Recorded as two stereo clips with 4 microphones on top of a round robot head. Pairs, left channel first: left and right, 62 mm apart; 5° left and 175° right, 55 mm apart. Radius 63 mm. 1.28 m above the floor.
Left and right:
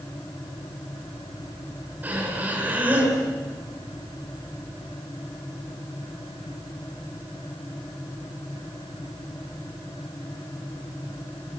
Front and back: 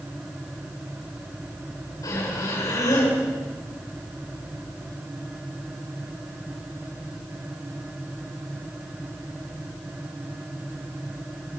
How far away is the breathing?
About 8 m.